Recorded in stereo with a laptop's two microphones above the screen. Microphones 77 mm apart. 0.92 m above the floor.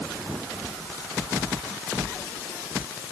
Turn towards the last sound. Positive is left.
No sound to turn to.